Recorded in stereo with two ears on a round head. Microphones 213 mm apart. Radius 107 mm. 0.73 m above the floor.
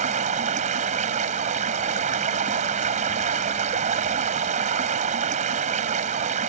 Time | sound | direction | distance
0.0 | running water | 30° right (ahead or behind) | ?